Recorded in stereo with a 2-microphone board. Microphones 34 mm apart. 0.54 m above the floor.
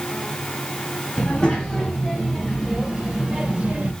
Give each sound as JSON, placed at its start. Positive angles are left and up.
{"t": 1.2, "sound": "a child speaking", "side_deg": 20, "distance_m": 2.5}